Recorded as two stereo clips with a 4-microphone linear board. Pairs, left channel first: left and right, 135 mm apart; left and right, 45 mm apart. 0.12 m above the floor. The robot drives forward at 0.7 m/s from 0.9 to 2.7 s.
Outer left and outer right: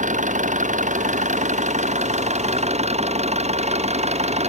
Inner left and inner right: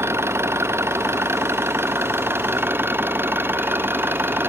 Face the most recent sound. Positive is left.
turn(degrees=-55)  # may be behind; listen again after turning